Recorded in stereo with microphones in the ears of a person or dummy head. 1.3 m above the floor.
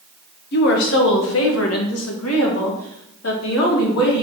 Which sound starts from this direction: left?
A woman speaking, at 0.5 s.